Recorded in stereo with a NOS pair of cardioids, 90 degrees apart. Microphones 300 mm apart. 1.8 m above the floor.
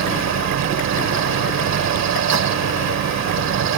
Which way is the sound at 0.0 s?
65° right.